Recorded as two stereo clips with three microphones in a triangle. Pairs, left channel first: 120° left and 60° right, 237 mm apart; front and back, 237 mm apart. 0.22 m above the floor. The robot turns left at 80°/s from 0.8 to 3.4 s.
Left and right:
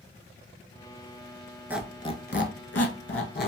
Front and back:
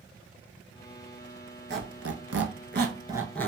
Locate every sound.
1.7 s a squeak: 140° right, 0.6 m; by 3.5 s 85° left, 0.6 m